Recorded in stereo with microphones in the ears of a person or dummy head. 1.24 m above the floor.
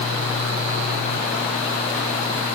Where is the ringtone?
No ringtone in this recording.